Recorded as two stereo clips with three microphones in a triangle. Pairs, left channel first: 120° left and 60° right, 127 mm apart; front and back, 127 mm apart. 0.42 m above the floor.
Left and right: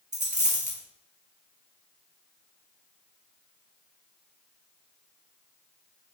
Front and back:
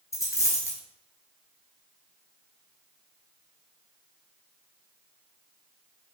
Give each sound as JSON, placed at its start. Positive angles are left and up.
{"t": 0.1, "sound": "a dropped coin", "azimuth_deg": -65, "distance_m": 1.0}